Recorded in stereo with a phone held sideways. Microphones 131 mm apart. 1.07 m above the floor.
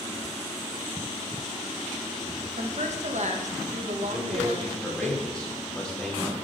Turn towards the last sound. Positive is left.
turn(degrees=5)  # may be behind; listen again after turning